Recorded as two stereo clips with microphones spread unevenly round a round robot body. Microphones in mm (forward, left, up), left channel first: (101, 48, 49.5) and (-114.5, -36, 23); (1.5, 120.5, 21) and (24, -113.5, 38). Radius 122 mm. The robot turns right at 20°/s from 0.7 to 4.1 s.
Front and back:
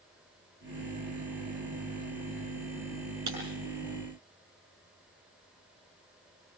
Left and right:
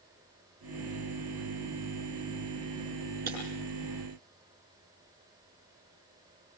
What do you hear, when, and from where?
3.3 s breaking glass: 140° right, 8 m